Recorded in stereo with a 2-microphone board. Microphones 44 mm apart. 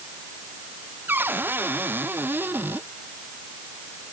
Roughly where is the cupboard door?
Right.